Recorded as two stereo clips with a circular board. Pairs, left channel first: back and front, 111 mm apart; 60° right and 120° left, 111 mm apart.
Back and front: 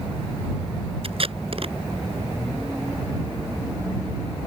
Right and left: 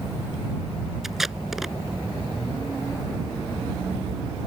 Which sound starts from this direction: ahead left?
Tape being pulled, at 1.0 s.